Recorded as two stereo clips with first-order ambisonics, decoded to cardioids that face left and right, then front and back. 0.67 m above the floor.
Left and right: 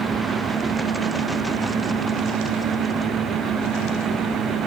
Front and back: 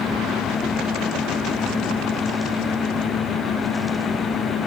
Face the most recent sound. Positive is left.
No sound to turn to.